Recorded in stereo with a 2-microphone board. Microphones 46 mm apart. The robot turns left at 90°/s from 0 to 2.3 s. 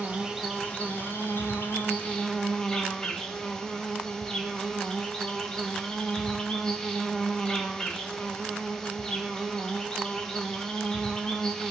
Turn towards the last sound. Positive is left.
turn(degrees=15)